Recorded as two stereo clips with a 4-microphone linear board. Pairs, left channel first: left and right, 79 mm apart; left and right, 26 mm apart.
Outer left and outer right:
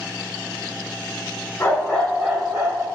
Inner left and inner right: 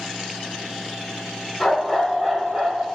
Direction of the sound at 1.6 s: 30° left (ahead or behind).